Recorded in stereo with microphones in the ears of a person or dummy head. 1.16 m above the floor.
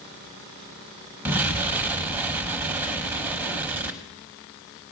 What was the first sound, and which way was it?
An explosion, 15° right (ahead or behind).